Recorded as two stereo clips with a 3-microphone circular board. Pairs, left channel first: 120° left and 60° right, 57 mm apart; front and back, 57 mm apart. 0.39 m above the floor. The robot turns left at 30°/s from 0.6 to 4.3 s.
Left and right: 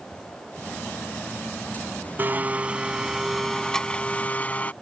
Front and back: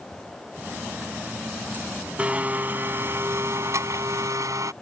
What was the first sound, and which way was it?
A blender, 115° right.